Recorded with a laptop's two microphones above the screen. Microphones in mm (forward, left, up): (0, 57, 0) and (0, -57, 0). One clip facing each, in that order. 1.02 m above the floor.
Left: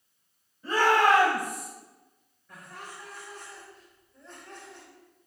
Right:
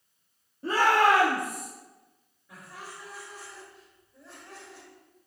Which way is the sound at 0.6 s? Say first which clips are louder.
Even; 75° right (ahead or behind).